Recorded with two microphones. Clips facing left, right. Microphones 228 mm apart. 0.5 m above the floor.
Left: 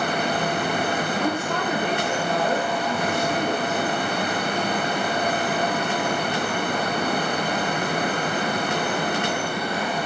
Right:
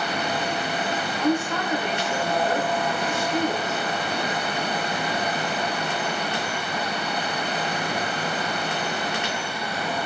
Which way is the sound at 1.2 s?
60° left (ahead or behind).